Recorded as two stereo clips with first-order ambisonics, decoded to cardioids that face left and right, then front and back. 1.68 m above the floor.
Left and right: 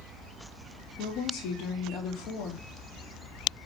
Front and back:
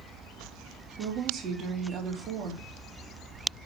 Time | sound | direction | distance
1.0 | a woman speaking | 125° left | 3.5 m